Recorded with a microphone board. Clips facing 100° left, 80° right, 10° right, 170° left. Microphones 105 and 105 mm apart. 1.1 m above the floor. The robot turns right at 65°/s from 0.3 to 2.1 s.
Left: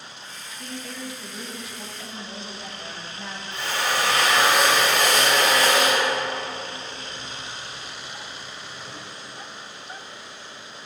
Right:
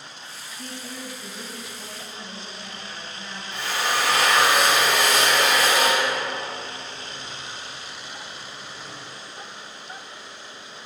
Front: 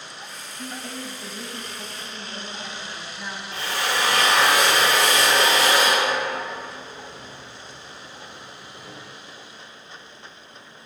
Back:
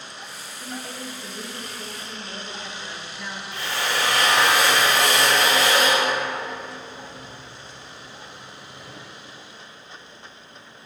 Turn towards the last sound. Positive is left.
turn(degrees=5)